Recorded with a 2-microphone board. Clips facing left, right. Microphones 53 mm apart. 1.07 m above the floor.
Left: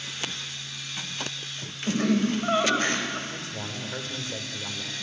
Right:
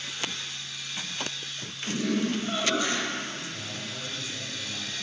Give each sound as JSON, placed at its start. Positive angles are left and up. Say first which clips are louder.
{"t": 1.9, "sound": "laughter", "louder": "left 4 dB", "side_deg": 45, "distance_m": 4.5}
{"t": 3.3, "sound": "a man speaking", "louder": "left 2 dB", "side_deg": 60, "distance_m": 4.0}